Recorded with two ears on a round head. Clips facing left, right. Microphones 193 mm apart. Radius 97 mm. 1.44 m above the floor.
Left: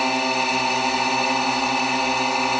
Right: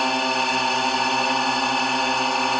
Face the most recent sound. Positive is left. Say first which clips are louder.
# left 1 dB
turn(degrees=5)  # may be behind; listen again after turning